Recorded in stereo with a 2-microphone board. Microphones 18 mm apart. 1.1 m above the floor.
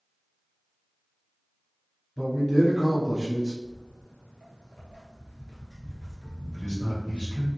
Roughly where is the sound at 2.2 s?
Left.